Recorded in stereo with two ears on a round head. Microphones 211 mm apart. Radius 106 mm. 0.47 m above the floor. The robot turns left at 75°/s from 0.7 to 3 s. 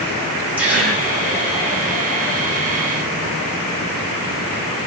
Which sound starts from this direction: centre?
A gasp, at 0.6 s.